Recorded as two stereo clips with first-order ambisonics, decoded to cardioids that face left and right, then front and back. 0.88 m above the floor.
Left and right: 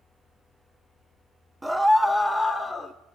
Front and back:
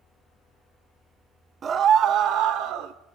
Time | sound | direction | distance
1.6 | a scream | 170° right | 1.0 m